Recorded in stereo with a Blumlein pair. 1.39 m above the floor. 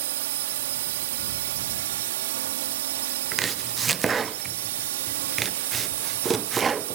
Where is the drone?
55° right.